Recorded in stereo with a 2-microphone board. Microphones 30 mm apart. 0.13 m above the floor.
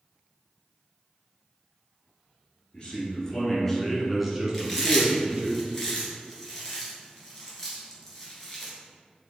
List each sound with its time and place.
2.7 s a man speaking: 30° left (ahead or behind), 1.8 m; by 5.5 s 45° right (ahead or behind), 1.6 m
4.5 s chewing: 20° left (ahead or behind), 1.6 m